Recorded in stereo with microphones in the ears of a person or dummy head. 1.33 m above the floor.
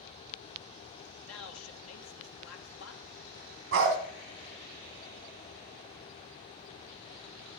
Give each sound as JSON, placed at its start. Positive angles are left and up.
{"t": 1.2, "sound": "a man speaking", "side_deg": 75, "distance_m": 1.3}
{"t": 3.7, "sound": "a dog barking", "side_deg": -60, "distance_m": 2.5}